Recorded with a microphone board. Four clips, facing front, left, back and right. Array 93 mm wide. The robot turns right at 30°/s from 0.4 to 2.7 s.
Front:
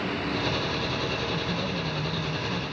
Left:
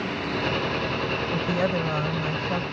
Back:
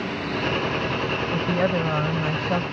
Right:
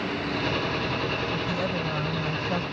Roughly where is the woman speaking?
Behind left.